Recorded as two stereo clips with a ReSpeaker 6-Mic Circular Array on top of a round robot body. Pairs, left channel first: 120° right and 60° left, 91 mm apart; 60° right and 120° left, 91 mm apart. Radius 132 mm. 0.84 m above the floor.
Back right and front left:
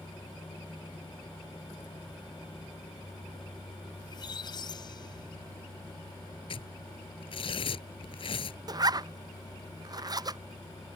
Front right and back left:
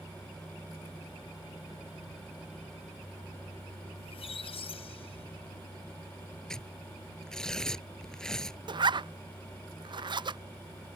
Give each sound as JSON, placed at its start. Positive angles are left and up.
{"t": 4.0, "sound": "a squeak", "azimuth_deg": -75}
{"t": 6.5, "sound": "tearing paper", "azimuth_deg": -145}
{"t": 8.7, "sound": "a zipper", "azimuth_deg": 100}